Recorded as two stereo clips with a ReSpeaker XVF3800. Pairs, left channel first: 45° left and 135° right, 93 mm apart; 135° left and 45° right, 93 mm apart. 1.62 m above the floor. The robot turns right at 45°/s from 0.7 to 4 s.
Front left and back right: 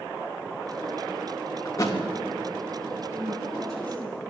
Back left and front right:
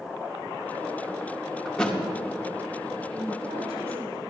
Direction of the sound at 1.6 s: 60° left.